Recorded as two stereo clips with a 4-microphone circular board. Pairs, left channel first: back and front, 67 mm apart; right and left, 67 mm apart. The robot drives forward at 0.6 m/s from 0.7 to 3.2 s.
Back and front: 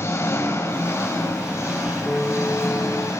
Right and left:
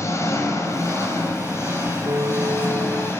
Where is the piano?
100° left, 1.2 m; by 3.1 s 130° left, 1.5 m.